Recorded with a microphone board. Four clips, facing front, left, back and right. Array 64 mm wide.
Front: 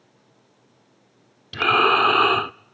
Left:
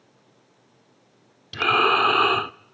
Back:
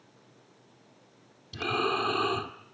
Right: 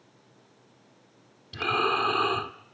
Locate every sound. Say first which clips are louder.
1.5 s breathing: left 7 dB, front 11 dB; 25° left, 0.5 m